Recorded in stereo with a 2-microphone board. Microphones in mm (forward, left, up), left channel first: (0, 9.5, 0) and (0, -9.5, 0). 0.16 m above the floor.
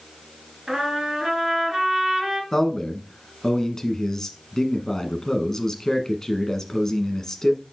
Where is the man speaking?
25° left (ahead or behind), 1.3 m.